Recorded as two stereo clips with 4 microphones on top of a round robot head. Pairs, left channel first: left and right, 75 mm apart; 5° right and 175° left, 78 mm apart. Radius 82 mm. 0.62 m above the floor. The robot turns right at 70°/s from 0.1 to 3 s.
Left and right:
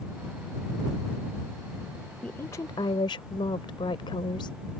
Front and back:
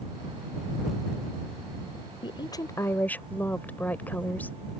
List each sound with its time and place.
2.2 s a woman speaking: 10° left; by 4.6 s 65° left